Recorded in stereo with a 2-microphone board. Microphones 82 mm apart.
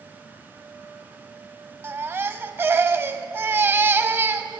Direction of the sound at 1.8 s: 30° right (ahead or behind).